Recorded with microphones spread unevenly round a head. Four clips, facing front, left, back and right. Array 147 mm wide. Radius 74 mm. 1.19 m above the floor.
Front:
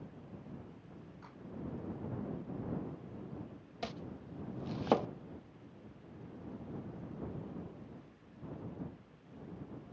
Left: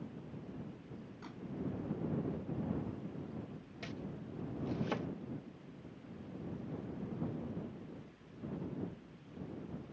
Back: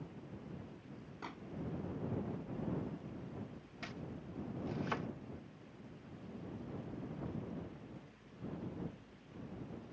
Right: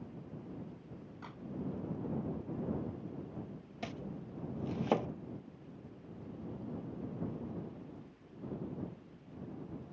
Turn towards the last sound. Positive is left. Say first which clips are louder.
# right 2 dB, front 4 dB
turn(degrees=-30)